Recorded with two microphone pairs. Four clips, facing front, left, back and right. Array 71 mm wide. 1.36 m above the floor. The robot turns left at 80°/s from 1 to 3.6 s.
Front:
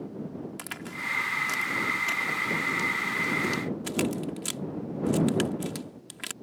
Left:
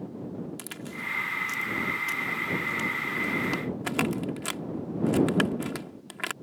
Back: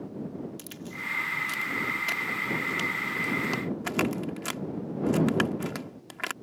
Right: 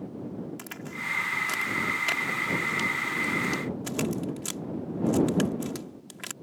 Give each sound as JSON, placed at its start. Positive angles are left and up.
{"t": 0.6, "sound": "a crack", "azimuth_deg": -10}